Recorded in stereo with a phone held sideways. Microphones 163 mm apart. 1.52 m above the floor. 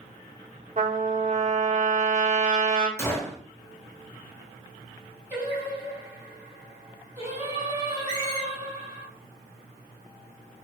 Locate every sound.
0.8 s a trumpet: 50° right (ahead or behind), 1.0 m
3.0 s a gunshot: 15° left (ahead or behind), 0.9 m
5.3 s singing: 15° right (ahead or behind), 2.5 m
8.1 s a squeak: 25° left (ahead or behind), 0.8 m